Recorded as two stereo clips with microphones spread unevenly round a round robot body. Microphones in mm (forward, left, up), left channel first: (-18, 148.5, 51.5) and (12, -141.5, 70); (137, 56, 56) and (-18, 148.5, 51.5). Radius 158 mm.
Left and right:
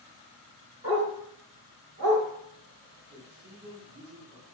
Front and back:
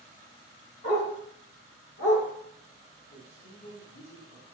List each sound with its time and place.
0.8 s a dog barking: 35° right, 1.9 m; by 2.2 s 40° right, 0.8 m
3.1 s a man speaking: 35° right, 1.6 m